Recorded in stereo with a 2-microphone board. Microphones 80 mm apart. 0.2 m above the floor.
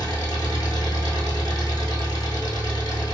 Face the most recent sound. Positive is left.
turn(degrees=55)  # may be behind; listen again after turning